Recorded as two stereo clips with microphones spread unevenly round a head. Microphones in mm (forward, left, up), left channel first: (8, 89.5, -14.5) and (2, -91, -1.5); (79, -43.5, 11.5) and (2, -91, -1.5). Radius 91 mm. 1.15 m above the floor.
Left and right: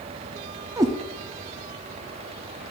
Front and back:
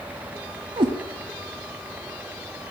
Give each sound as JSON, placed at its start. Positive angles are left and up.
{"t": 0.8, "sound": "a cat meowing", "azimuth_deg": -155, "distance_m": 0.7}